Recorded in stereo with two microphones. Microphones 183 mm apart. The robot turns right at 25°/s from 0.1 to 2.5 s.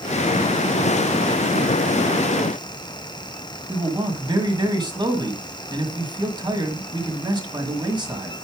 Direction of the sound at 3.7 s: 25° right (ahead or behind).